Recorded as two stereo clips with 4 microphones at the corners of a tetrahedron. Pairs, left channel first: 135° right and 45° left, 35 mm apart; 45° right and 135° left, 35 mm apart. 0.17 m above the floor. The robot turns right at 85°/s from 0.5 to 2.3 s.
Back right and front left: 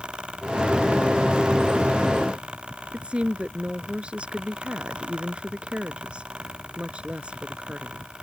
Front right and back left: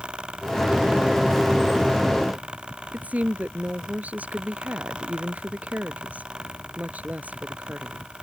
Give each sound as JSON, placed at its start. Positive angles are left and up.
{"t": 2.9, "sound": "a woman speaking", "azimuth_deg": 100}